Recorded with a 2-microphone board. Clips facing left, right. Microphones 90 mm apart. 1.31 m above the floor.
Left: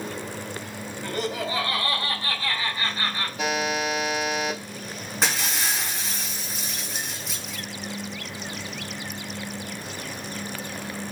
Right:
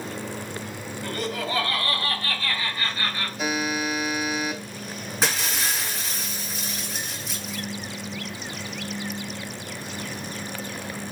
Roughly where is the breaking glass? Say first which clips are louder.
Even; centre.